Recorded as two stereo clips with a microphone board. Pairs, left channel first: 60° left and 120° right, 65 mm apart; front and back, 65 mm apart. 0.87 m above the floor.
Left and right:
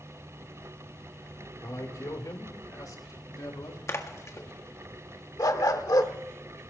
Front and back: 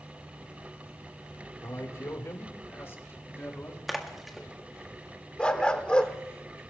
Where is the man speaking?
35° left, 2.5 m; by 3.8 s 55° left, 4 m.